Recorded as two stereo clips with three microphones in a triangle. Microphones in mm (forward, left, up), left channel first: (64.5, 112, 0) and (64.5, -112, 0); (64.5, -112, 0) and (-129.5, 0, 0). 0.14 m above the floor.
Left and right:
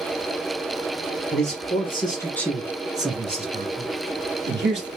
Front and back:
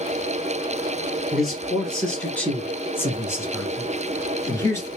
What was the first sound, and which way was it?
A man speaking, 60° left.